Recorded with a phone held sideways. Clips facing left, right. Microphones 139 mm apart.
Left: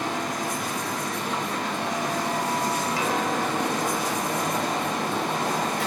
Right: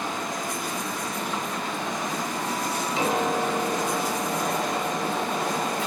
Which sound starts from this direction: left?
A fan, at 0.0 s.